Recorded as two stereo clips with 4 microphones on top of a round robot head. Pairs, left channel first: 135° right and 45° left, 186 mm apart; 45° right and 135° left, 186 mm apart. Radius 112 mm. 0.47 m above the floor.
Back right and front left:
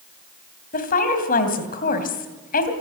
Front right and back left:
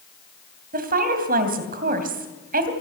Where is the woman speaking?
Straight behind, 3 m.